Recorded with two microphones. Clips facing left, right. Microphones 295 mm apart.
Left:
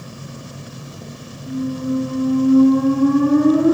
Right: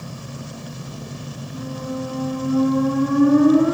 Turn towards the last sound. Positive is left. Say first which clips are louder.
# left 9 dB
turn(degrees=40)  # may be behind; listen again after turning